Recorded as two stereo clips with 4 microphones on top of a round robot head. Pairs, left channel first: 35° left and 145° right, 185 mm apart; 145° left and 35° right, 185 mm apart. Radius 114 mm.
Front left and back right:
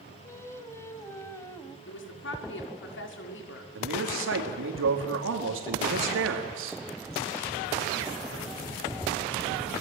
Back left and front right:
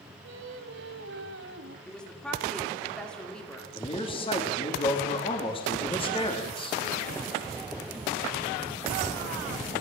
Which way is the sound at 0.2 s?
35° right.